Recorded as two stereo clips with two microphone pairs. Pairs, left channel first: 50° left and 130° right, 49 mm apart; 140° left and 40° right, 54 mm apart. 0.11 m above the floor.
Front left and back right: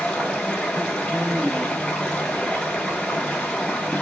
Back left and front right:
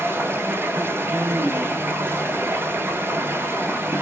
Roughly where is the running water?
Ahead.